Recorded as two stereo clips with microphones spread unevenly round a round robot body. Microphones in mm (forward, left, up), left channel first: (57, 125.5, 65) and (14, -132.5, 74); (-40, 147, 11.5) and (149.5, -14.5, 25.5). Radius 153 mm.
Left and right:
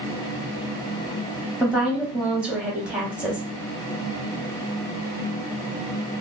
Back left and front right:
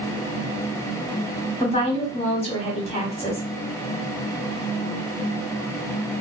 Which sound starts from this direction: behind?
A woman speaking, at 1.6 s.